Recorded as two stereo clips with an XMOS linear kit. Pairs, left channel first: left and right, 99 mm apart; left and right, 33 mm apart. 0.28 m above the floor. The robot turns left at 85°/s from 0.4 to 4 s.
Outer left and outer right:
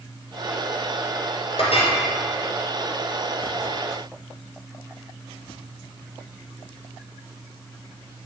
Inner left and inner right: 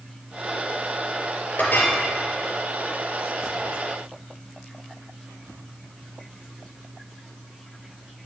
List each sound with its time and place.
1.6 s a clink: 100° left, 3 m; by 1.9 s 70° left, 3 m